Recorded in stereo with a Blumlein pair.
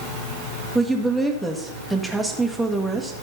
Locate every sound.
0.8 s a woman speaking: 5° right, 1.6 m